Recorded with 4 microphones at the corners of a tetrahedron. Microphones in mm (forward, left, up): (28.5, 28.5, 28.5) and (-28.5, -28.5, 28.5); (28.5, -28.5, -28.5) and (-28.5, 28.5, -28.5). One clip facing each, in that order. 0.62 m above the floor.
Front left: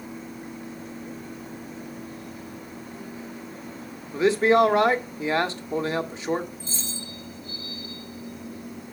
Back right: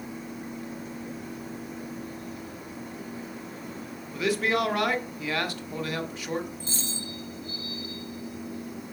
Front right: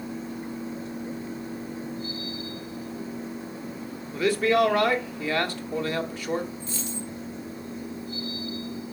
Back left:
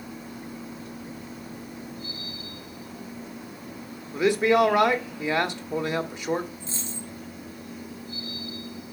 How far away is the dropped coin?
About 2.5 m.